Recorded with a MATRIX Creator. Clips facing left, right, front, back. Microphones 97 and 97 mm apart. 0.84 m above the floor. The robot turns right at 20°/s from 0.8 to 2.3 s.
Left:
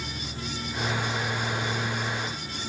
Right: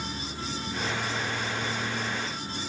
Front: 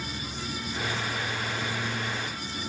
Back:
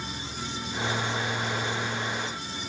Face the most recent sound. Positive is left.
turn(degrees=-50)